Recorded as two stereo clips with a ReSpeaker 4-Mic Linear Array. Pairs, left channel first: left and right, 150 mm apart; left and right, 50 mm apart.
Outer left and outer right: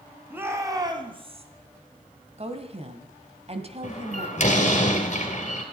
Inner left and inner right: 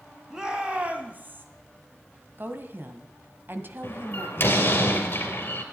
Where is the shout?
15° right (ahead or behind), 2.5 m; by 1.4 s 45° right (ahead or behind), 2.5 m.